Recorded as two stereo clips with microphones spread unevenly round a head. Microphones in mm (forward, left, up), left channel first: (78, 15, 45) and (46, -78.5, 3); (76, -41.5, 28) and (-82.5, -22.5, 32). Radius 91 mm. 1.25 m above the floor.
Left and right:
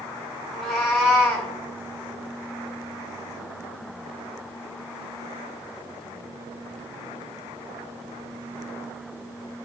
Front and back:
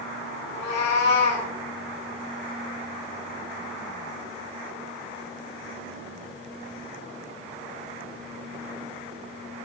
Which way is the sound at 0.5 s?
15° right.